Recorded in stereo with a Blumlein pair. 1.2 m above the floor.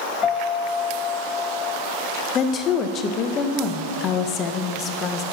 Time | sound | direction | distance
0.2 | a piano | 25° left | 0.5 m
2.4 | a woman speaking | 30° left | 0.9 m